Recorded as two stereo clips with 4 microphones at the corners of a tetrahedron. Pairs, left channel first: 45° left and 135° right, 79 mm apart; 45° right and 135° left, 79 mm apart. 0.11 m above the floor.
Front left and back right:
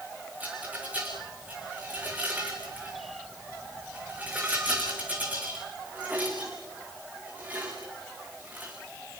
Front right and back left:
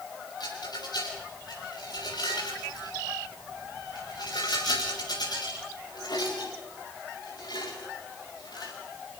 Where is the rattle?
65° right, 6.5 m.